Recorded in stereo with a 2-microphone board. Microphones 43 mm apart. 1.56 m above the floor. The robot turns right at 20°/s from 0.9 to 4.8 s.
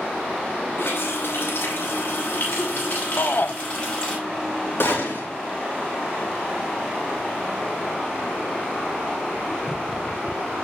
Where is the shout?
55° left (ahead or behind), 0.8 m; by 3.5 s 50° left (ahead or behind), 0.8 m.